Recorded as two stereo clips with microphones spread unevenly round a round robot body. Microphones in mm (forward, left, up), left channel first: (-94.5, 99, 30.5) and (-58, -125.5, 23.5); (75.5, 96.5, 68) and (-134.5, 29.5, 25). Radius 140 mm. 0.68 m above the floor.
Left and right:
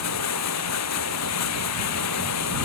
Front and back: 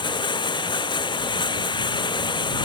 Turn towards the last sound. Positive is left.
turn(degrees=85)